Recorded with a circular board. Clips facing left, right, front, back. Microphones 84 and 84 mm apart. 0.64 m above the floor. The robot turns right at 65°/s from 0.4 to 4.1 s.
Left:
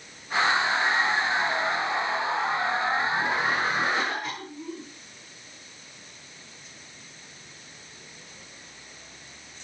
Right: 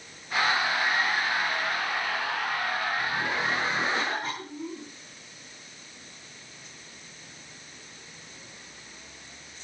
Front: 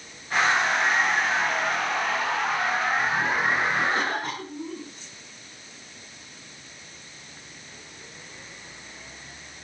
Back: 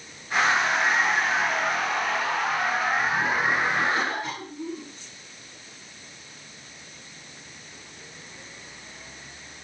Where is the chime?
No chime in this recording.